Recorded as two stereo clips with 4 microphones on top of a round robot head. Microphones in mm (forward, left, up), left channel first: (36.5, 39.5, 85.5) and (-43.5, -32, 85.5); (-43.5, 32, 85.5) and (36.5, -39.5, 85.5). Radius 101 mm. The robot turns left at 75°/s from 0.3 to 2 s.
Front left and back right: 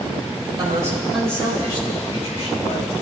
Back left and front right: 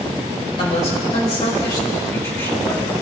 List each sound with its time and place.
0.6 s a man speaking: 175° left, 4 m; by 2.9 s 70° left, 4 m